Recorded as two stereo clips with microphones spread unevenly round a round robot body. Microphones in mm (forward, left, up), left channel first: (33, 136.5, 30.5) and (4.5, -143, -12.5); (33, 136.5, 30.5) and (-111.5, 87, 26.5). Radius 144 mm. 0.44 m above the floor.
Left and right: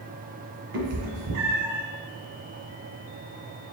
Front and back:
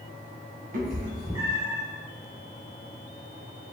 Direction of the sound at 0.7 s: 135° right.